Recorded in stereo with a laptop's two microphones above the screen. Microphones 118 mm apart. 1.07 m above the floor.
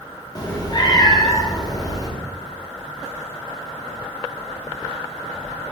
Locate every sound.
0.3 s a cat meowing: 30° left (ahead or behind), 0.6 m